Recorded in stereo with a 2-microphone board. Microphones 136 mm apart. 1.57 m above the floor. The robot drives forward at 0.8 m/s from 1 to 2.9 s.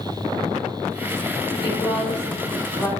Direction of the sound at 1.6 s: 45° left (ahead or behind).